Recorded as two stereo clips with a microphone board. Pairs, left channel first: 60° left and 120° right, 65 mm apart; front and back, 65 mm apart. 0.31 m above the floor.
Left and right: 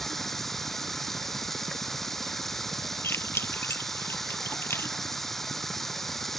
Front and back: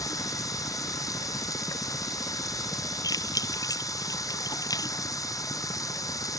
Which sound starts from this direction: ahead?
Keys jangling, at 3.0 s.